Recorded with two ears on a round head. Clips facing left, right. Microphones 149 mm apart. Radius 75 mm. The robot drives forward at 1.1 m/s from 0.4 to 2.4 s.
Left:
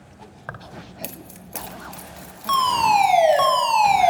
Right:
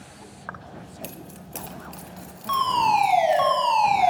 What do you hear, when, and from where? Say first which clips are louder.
0.5 s keys jangling: left 2 dB; 35° left (ahead or behind), 0.7 m; by 3.5 s 10° left (ahead or behind), 2.5 m
2.5 s a fire alarm: left 3 dB; 60° left (ahead or behind), 3.5 m